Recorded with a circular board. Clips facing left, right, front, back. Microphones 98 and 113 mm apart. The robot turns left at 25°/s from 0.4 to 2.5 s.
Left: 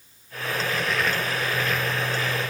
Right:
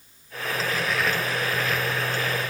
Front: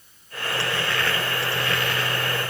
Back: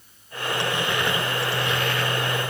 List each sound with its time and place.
Only background noise.